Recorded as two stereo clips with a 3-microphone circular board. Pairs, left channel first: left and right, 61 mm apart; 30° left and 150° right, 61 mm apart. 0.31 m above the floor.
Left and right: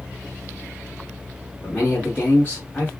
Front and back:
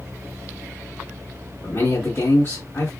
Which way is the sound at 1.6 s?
40° left.